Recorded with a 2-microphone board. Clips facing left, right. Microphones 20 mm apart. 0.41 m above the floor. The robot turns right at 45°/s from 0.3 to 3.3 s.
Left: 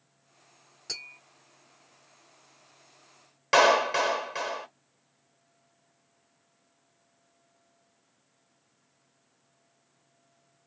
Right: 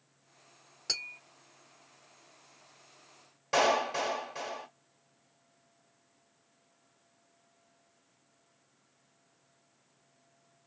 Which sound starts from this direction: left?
A clap, at 3.5 s.